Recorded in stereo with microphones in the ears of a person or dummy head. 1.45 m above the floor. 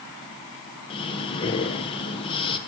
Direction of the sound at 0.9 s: 35° left (ahead or behind).